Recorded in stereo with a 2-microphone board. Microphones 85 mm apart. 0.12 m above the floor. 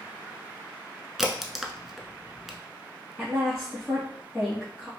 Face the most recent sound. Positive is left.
turn(degrees=10)  # may be behind; listen again after turning